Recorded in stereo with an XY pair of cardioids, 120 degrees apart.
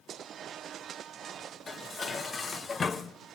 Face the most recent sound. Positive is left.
turn(degrees=30)